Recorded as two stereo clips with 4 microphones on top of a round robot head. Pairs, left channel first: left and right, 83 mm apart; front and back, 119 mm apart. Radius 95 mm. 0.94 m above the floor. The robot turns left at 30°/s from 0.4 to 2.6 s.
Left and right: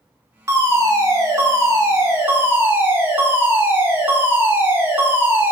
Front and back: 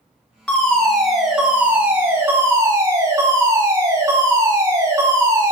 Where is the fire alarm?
70° right, 1.7 m; by 5.5 s 135° right, 1.7 m.